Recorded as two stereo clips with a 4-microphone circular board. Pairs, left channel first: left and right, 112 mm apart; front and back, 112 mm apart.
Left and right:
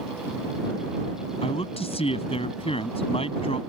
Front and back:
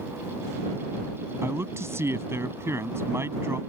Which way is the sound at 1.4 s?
115° left.